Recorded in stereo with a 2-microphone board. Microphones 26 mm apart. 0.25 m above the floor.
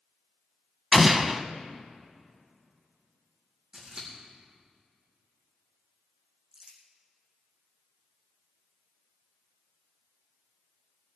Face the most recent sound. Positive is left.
turn(degrees=-30)  # may be behind; listen again after turning